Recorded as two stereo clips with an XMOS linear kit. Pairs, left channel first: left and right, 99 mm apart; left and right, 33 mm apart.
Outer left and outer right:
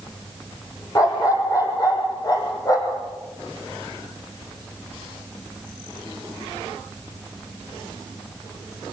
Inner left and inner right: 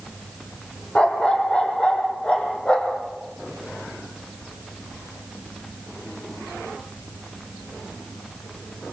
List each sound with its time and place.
0.9 s a dog barking: 35° left (ahead or behind), 4 m